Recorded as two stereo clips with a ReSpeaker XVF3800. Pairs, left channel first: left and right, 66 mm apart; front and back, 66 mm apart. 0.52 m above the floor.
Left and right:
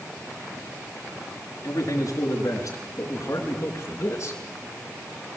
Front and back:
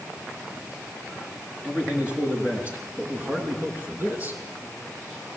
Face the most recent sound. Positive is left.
turn(degrees=120)